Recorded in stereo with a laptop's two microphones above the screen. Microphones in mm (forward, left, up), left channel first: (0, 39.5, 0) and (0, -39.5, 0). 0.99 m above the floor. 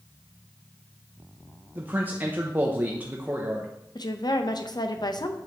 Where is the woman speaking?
60° left (ahead or behind), 0.6 m.